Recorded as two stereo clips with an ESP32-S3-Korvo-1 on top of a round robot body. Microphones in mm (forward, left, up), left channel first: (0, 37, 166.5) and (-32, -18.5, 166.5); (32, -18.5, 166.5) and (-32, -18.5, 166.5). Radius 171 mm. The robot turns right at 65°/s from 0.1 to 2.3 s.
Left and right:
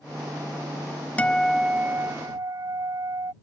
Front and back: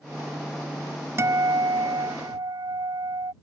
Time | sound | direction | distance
1.2 | a guitar | 130° left | ?